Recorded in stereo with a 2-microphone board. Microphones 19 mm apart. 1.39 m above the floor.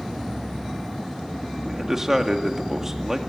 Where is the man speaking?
25° right (ahead or behind), 2 m.